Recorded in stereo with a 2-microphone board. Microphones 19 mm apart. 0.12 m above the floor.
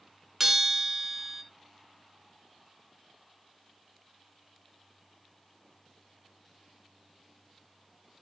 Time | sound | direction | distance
0.4 | a bell | 10° right (ahead or behind) | 1.8 m